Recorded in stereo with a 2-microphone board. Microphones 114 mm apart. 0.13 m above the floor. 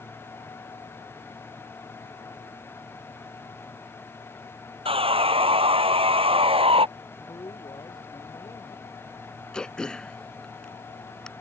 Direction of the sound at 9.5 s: 5° left (ahead or behind).